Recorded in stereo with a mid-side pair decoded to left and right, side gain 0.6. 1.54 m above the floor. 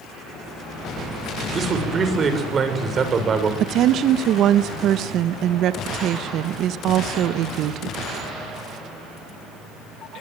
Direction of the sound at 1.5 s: 35° right.